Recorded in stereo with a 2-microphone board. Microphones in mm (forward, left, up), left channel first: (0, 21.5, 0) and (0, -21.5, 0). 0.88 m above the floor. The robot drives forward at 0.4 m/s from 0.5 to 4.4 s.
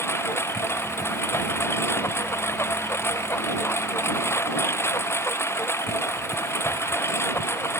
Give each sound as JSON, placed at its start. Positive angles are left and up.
{"t": 0.0, "sound": "a lawn mower", "side_deg": 75}